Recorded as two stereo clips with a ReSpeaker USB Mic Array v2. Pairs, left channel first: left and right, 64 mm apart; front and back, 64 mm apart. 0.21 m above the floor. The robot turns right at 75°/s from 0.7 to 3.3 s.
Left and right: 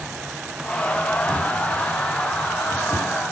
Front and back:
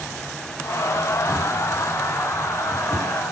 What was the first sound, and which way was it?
A drawer, 10° left.